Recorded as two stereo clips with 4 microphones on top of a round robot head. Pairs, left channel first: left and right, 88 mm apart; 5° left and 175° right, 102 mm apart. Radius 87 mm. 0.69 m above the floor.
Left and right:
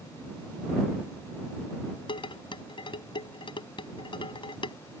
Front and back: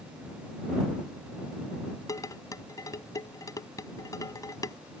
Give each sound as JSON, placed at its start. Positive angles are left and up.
{"t": 2.1, "sound": "dishes clattering", "azimuth_deg": 65}